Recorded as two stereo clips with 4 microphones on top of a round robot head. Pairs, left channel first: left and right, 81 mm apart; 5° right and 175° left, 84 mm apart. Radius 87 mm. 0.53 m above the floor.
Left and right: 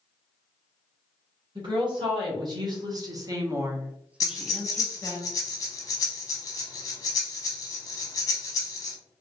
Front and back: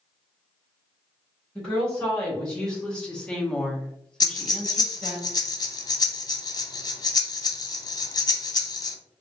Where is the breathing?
35° left, 0.6 m.